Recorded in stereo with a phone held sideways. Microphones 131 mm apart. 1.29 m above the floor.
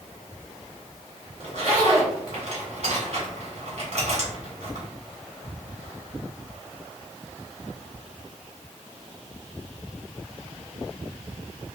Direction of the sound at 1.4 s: 55° right (ahead or behind).